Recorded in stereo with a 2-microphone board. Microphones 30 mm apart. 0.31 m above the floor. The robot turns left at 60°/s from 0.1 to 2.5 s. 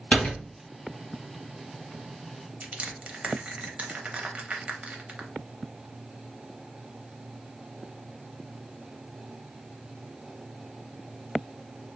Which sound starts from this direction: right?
Crushing, at 2.6 s.